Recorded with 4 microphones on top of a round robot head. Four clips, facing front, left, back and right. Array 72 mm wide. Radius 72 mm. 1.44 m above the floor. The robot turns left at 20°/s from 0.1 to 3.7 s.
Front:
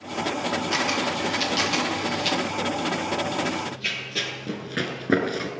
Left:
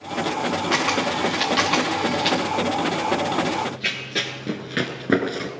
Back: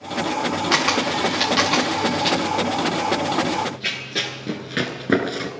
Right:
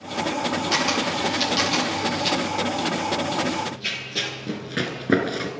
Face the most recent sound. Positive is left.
turn(degrees=-150)